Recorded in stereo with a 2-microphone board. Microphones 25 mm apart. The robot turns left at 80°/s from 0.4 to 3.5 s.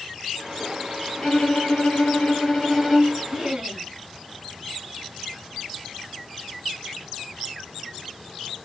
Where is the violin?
140° left, 4 m; by 3.2 s 20° right, 4 m.